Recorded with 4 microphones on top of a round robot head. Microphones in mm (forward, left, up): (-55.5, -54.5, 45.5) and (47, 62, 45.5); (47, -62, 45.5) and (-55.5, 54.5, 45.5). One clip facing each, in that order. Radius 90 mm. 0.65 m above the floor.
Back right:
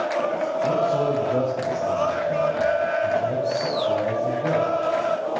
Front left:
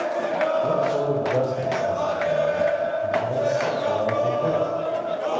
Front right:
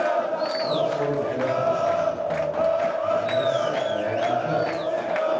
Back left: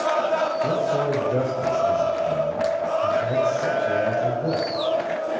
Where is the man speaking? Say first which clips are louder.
Back right 1 dB, back left 1 dB; 120° left, 4 m.